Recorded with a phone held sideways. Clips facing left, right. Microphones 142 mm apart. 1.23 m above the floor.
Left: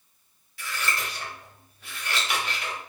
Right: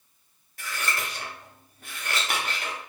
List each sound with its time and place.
0.6 s scissors: 50° right (ahead or behind), 0.8 m